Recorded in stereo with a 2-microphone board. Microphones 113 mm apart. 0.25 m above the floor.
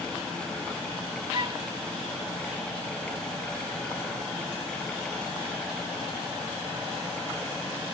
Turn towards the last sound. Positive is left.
turn(degrees=-40)  # may be behind; listen again after turning